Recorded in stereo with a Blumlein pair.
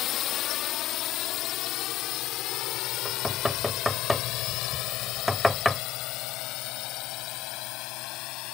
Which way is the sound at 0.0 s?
35° left.